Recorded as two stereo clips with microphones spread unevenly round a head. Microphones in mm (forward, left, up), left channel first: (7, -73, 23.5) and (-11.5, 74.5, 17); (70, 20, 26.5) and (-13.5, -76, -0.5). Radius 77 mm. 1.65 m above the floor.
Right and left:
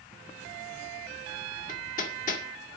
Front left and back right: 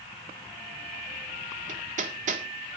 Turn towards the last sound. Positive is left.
turn(degrees=-110)